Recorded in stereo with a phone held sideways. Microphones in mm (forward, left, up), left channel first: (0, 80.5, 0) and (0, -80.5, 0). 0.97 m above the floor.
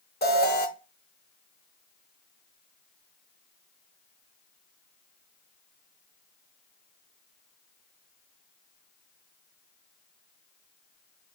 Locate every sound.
0.2 s an alarm: 85° left, 0.7 m